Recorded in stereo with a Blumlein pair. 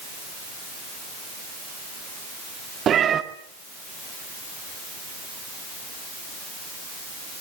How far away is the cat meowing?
About 1.8 m.